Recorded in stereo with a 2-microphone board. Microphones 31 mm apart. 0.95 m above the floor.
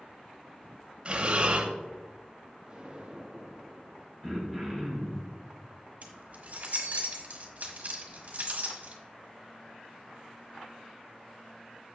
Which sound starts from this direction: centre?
Throat clearing, at 4.2 s.